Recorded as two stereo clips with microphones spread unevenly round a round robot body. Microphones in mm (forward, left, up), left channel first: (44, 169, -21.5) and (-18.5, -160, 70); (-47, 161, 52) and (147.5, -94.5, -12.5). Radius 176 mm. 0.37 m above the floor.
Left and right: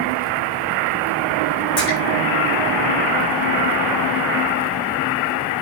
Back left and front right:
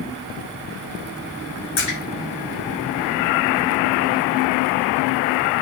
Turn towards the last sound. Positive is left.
turn(degrees=135)